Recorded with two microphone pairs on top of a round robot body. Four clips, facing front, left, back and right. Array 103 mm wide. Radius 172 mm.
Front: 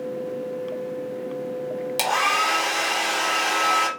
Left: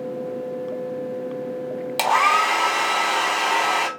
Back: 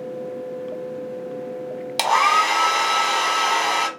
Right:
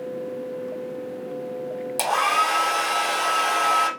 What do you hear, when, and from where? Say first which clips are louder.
2.0 s a hair dryer: left 3 dB, back 6 dB; 135° left, 1.1 m